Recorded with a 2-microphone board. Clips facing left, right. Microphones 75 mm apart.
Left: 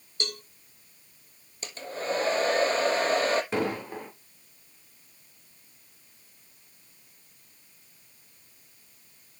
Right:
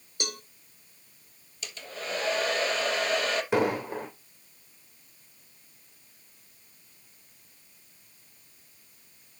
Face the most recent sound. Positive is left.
turn(degrees=-15)  # may be behind; listen again after turning